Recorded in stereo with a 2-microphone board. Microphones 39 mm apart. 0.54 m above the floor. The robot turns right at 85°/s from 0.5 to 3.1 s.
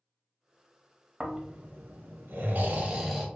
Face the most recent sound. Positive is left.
turn(degrees=-10)